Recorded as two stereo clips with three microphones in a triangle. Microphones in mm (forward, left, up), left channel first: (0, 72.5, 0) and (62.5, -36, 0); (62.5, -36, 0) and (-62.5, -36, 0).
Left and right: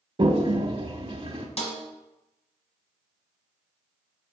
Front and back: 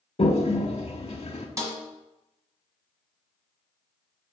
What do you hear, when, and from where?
0.2 s a toilet flushing: 20° right, 0.8 m
1.6 s a snare drum: 125° left, 1.6 m